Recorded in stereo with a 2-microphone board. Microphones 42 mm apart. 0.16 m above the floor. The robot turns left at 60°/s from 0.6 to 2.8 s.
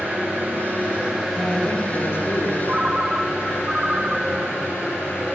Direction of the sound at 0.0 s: 130° right.